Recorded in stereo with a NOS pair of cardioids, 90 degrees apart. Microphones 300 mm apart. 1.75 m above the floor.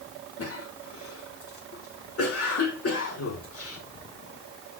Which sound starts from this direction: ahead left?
A cough, at 0.4 s.